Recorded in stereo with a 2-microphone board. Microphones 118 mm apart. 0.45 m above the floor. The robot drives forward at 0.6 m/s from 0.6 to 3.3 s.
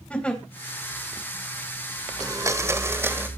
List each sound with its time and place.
0.1 s a giggle: 10° left (ahead or behind), 2.5 m
2.2 s a blender: 30° right (ahead or behind), 0.8 m; by 3.3 s 15° right (ahead or behind), 1.3 m